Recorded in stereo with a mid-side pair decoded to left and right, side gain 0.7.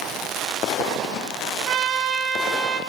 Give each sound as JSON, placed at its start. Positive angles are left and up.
{"t": 1.7, "sound": "a trumpet", "azimuth_deg": -45, "distance_m": 1.1}